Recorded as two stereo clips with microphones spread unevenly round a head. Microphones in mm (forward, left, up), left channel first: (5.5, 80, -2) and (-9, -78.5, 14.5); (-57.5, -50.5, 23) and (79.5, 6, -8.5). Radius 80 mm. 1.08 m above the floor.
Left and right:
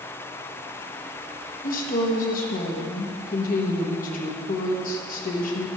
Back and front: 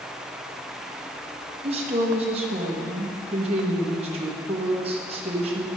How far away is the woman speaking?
About 1.2 m.